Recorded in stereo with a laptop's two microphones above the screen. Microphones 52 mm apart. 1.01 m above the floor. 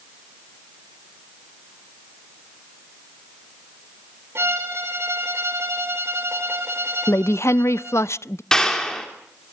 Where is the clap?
10° left (ahead or behind), 3 m.